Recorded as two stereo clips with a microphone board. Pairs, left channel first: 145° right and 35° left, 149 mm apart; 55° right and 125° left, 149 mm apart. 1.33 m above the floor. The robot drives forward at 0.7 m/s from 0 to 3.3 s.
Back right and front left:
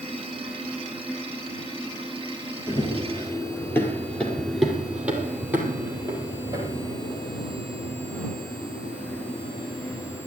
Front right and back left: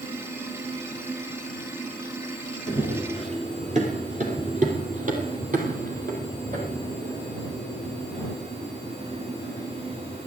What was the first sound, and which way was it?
Running footsteps, 160° left.